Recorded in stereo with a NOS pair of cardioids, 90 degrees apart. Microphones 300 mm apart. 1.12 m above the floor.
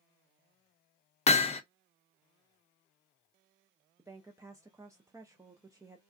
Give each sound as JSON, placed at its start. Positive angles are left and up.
{"t": 1.3, "sound": "hammering", "azimuth_deg": 20, "distance_m": 0.7}
{"t": 4.0, "sound": "a woman speaking", "azimuth_deg": -10, "distance_m": 0.6}